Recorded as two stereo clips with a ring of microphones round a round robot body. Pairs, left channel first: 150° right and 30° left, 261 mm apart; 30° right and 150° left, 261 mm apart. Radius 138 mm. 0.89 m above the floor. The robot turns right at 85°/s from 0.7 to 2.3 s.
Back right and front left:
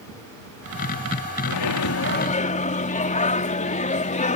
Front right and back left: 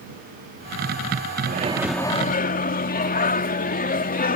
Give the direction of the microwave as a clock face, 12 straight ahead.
5 o'clock.